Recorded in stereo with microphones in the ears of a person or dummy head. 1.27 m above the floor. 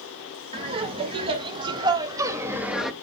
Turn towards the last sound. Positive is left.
turn(degrees=5)  # may be behind; listen again after turning